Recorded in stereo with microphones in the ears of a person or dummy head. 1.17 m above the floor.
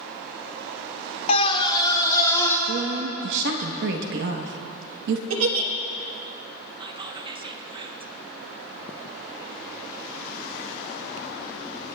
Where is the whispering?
25° right (ahead or behind), 0.8 m.